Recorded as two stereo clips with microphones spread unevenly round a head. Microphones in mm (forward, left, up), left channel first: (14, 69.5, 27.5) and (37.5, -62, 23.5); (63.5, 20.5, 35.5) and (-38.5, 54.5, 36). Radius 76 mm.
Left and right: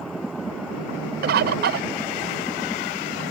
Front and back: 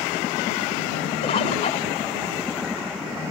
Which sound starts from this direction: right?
A bird, at 1.2 s.